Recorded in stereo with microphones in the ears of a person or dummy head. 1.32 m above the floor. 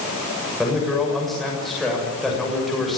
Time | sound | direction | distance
0.6 | a man speaking | centre (ahead or behind) | 7 m